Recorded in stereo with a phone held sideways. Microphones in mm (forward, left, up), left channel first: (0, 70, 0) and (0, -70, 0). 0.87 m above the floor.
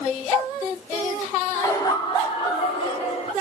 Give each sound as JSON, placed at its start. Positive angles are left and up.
{"t": 1.6, "sound": "laughter", "side_deg": 25, "distance_m": 0.9}